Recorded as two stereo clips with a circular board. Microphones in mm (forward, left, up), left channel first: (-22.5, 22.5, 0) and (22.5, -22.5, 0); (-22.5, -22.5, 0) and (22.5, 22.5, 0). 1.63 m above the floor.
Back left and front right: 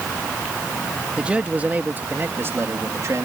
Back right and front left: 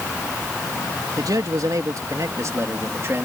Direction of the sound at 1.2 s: 30° left.